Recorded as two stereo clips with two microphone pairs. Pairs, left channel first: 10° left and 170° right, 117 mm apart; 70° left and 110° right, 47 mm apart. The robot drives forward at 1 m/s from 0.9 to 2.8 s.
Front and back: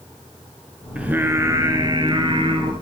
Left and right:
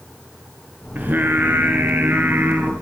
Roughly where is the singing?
Right.